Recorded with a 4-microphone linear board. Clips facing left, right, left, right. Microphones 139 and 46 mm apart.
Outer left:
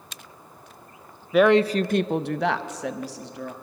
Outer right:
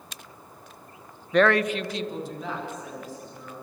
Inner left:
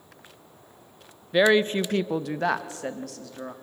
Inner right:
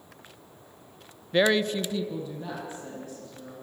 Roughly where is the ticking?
No ticking in this recording.